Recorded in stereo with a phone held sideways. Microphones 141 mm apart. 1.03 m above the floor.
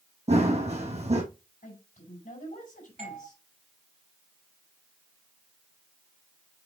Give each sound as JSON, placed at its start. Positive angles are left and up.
{"t": 0.3, "sound": "running footsteps", "side_deg": -50, "distance_m": 1.8}
{"t": 1.6, "sound": "a woman speaking", "side_deg": 85, "distance_m": 4.0}
{"t": 3.0, "sound": "a doorbell", "side_deg": -70, "distance_m": 3.0}